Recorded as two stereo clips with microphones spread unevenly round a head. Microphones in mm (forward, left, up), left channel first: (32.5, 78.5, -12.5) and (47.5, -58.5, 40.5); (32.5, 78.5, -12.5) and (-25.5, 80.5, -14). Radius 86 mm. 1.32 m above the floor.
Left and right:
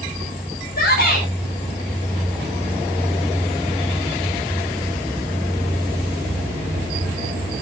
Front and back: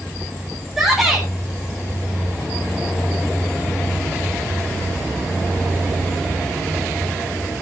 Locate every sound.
0.8 s a shout: 95° left, 8 m